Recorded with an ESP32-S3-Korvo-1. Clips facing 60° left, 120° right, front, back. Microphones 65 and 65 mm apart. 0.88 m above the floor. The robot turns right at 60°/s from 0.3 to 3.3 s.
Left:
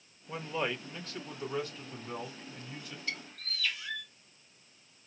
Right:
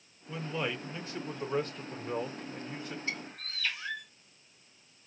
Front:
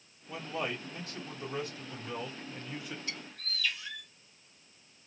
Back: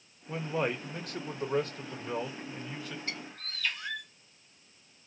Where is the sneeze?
I don't hear a sneeze.